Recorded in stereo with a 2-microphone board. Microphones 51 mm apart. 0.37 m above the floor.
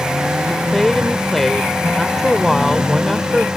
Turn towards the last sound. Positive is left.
turn(degrees=5)  # may be behind; listen again after turning